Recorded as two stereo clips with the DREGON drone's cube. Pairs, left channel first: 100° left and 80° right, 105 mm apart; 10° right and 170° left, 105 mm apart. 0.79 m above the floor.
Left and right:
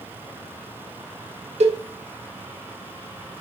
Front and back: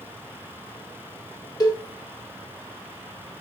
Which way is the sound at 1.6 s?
65° right.